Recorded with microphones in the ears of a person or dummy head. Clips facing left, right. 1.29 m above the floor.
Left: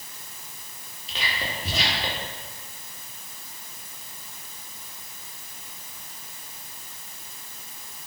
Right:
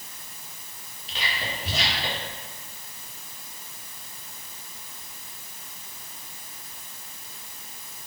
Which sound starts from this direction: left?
Whispering, at 1.1 s.